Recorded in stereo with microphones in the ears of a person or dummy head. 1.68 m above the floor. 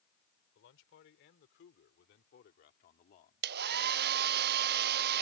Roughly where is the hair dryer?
Right.